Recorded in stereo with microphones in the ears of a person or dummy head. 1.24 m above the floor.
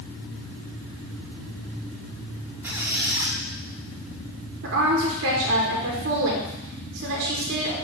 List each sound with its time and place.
2.6 s a squeak: 10° right (ahead or behind), 0.7 m
4.6 s a woman speaking: 55° right (ahead or behind), 1.0 m